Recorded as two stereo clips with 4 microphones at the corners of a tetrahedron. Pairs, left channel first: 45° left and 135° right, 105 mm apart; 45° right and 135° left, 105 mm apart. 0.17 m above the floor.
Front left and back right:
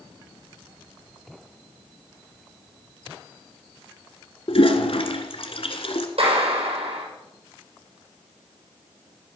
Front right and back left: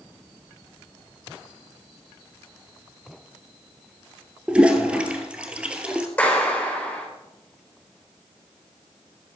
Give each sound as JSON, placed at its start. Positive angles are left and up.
{"t": 4.5, "sound": "a toilet flushing", "azimuth_deg": 60, "distance_m": 1.8}
{"t": 6.2, "sound": "a clap", "azimuth_deg": -120, "distance_m": 7.0}